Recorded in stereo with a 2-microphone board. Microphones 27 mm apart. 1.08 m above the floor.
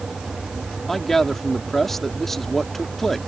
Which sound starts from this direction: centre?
A man speaking, at 0.9 s.